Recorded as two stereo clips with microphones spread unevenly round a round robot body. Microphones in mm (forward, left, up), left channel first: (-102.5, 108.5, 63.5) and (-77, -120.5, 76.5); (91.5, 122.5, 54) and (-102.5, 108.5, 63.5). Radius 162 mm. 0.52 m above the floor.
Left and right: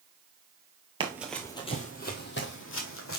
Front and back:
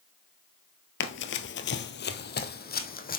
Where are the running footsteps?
15° right, 0.7 m; by 3.2 s 50° left, 1.9 m.